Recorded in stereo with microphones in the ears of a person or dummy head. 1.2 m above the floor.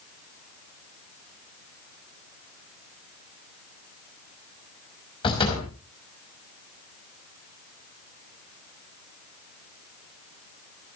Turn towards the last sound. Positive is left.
turn(degrees=30)  # may be behind; listen again after turning